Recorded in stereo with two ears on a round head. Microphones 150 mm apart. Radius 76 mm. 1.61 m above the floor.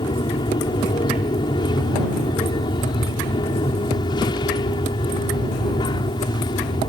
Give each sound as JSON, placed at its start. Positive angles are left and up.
{"t": 0.0, "sound": "an aircraft", "side_deg": 25}